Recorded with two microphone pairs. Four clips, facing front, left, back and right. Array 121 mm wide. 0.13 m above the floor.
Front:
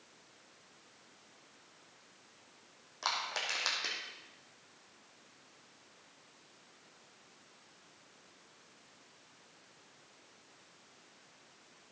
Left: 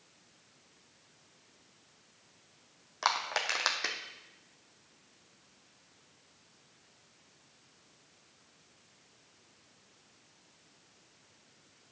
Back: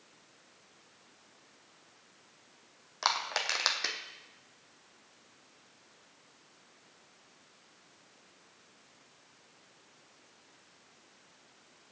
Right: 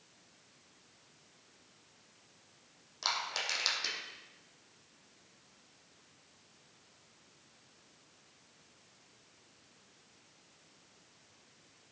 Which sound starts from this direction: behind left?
Crushing, at 3.0 s.